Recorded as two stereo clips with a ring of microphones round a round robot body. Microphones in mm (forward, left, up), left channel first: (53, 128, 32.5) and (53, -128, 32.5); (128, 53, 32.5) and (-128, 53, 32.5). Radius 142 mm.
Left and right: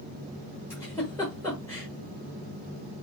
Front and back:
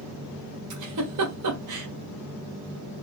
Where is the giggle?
170° left, 1.0 m.